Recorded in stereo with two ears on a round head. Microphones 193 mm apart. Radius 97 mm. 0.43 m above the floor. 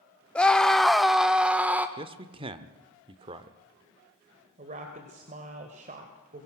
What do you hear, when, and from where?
0.3 s a scream: 5° left (ahead or behind), 0.9 m; by 1.9 s 10° right (ahead or behind), 1.0 m
2.0 s a man speaking: 25° right (ahead or behind), 1.0 m
4.6 s a woman speaking: 35° right (ahead or behind), 2.0 m